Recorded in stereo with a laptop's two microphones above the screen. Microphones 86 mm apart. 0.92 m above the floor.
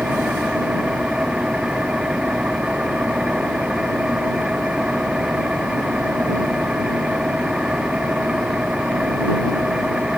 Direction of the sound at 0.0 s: 10° right (ahead or behind).